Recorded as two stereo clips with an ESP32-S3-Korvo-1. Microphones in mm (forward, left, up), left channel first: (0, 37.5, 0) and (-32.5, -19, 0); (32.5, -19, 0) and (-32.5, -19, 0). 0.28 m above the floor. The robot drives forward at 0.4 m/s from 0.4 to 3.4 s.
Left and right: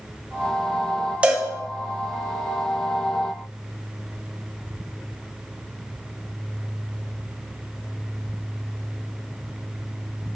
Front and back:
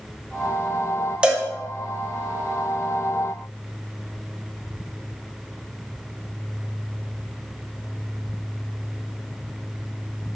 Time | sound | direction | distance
1.2 | a cowbell | 140° right | 0.7 m